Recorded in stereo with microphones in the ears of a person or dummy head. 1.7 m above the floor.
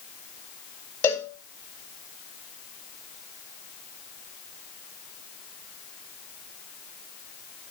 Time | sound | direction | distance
1.0 | a cowbell | 15° left (ahead or behind) | 1.4 m